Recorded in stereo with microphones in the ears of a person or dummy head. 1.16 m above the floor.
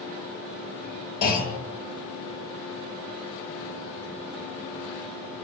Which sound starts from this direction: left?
A clunk, at 1.2 s.